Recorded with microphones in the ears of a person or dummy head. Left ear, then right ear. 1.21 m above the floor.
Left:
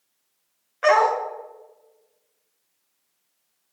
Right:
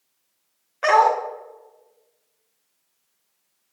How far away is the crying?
I don't hear crying.